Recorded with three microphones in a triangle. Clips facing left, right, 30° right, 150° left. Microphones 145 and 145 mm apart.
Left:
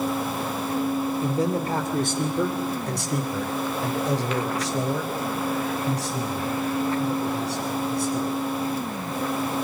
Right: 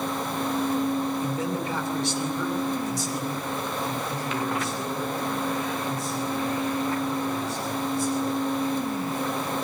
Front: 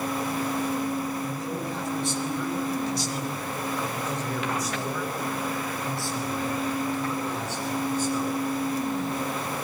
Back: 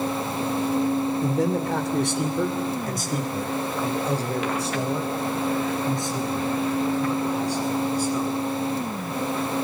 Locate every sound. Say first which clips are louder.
1.2 s a man speaking: left 4 dB, back 8 dB; 150° left, 2.5 m; by 8.3 s 70° left, 8 m